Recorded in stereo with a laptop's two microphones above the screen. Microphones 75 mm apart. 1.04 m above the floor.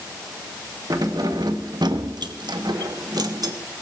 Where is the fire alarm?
No fire alarm in this recording.